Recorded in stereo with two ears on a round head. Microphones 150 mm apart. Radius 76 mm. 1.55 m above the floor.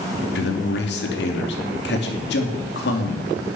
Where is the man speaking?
75° left (ahead or behind), 3 m.